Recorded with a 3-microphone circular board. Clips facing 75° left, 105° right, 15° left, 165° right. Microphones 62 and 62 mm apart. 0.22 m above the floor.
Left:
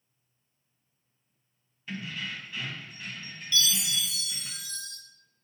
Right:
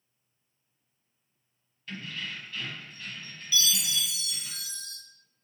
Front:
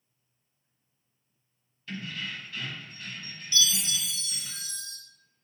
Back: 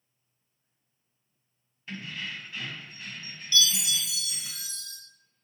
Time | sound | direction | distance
1.9 | keys jangling | 140° left | 1.2 m
3.5 | a chime | 30° right | 1.4 m